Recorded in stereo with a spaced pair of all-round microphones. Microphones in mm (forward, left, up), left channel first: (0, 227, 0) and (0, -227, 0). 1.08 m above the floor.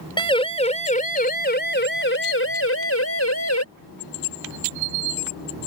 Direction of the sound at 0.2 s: 10° left (ahead or behind).